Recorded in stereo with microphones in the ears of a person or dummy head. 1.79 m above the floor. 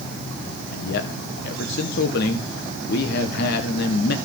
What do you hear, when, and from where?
0.7 s a man speaking: 60° left (ahead or behind), 2.0 m